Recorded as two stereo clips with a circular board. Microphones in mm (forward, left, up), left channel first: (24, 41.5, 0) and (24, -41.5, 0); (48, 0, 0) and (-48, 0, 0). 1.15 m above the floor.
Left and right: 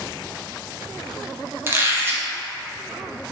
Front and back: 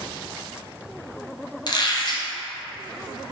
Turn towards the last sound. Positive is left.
turn(degrees=-30)